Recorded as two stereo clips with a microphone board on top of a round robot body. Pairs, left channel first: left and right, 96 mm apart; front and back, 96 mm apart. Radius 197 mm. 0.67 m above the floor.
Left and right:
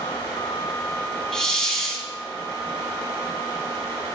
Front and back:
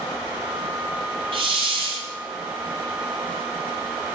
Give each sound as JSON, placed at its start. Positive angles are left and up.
{"t": 1.3, "sound": "a hiss", "azimuth_deg": 175, "distance_m": 1.9}